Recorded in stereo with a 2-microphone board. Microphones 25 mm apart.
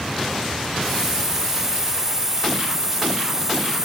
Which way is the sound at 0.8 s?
20° right (ahead or behind).